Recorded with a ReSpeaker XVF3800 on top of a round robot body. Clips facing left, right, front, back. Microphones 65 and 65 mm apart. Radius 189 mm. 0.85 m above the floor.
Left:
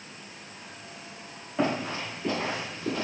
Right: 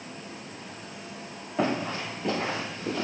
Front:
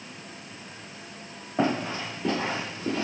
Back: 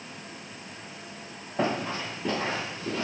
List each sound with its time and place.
1.6 s running footsteps: 10° right, 1.1 m; by 3.0 s 45° left, 0.8 m